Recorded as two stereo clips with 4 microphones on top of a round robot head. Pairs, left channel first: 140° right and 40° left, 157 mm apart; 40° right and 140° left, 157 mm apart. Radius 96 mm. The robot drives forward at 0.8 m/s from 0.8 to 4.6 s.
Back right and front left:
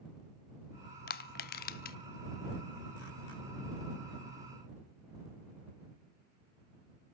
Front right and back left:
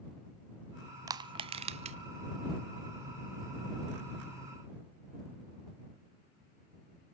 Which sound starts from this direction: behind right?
Crushing, at 1.1 s.